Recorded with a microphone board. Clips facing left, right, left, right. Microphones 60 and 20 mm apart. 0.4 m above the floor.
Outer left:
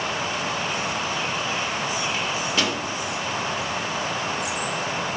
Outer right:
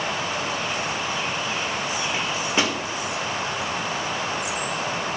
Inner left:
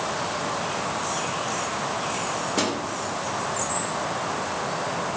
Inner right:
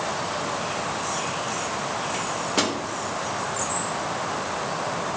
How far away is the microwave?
About 0.8 m.